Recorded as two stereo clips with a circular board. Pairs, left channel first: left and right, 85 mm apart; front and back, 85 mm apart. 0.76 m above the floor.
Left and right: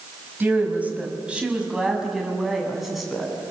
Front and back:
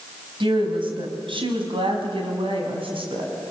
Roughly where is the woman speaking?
Behind.